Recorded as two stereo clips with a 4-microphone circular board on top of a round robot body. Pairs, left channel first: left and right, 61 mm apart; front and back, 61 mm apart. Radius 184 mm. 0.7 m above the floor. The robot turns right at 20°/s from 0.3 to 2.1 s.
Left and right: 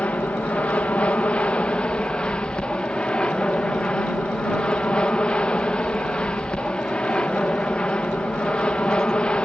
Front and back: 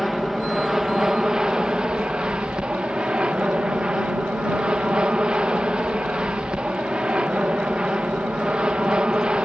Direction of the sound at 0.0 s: 100° left.